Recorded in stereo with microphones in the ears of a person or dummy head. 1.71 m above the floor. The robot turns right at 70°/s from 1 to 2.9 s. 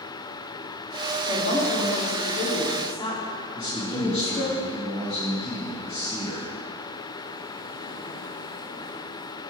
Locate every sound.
1.3 s a woman speaking: 40° left, 1.3 m; by 4.5 s 155° left, 1.3 m
3.5 s a man speaking: 25° right (ahead or behind), 1.5 m